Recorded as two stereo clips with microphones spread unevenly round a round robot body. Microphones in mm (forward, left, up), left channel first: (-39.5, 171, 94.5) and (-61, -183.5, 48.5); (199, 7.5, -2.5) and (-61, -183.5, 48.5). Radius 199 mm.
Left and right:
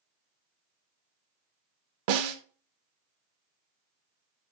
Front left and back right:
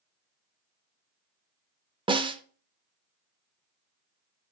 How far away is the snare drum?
About 0.6 m.